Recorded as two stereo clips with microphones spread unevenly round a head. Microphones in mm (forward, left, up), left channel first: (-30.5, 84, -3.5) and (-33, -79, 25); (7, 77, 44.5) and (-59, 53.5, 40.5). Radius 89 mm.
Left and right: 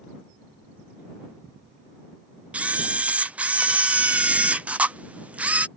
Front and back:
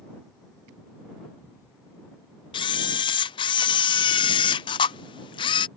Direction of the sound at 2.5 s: 10° right.